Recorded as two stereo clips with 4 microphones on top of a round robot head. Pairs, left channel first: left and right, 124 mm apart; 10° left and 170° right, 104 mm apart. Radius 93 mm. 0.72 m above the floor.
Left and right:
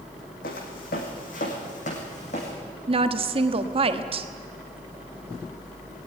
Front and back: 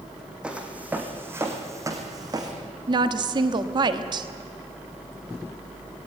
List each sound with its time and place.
0.4 s footsteps: 110° left, 3 m; by 2.5 s 140° left, 3.5 m
2.9 s a woman speaking: 125° right, 1.1 m